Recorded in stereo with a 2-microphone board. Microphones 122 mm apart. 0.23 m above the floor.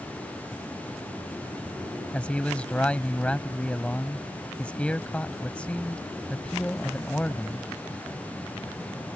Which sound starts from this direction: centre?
A man speaking, at 2.1 s.